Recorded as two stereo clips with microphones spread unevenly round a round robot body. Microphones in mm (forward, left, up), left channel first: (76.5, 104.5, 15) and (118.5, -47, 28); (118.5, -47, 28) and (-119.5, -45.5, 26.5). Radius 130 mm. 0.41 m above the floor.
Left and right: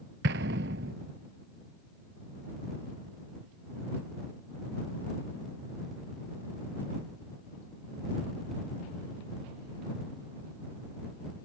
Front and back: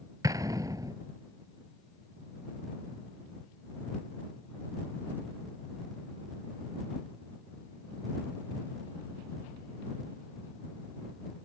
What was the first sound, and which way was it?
An explosion, 105° right.